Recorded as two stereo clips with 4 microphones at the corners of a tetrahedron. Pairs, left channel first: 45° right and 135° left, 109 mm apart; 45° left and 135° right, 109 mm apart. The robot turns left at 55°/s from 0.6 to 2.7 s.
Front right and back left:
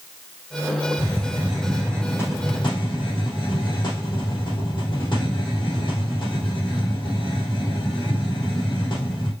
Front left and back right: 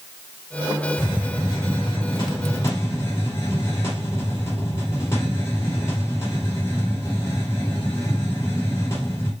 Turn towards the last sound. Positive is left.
turn(degrees=-15)